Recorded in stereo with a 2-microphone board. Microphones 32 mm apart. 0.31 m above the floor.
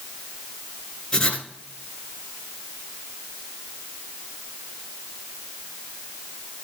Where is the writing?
35° left (ahead or behind), 1.7 m.